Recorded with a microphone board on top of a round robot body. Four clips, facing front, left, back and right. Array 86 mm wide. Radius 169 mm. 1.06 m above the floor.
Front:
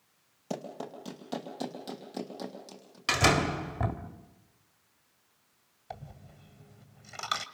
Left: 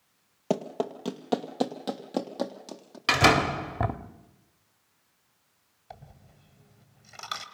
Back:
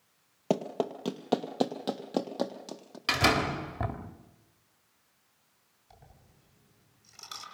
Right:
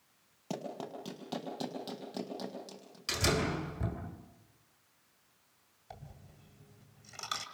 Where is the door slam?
85° left, 1.6 m.